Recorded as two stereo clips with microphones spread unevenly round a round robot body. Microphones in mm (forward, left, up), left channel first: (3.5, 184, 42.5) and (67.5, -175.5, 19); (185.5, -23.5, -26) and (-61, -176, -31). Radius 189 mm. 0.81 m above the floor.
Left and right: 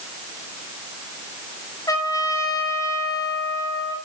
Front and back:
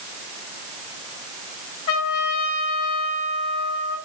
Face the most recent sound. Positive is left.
turn(degrees=20)